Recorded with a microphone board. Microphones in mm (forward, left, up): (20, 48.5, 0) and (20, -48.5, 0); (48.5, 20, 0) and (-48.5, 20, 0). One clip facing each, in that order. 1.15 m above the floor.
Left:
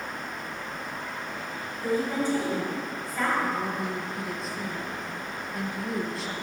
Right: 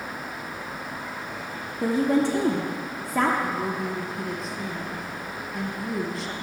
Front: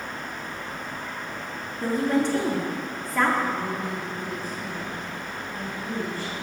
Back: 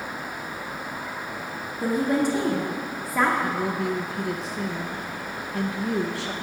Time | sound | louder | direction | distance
1.8 | a woman speaking | right 5 dB, back 1 dB | 100° right | 0.7 m
3.4 | a woman speaking | right 1 dB, back 2 dB | straight behind | 0.7 m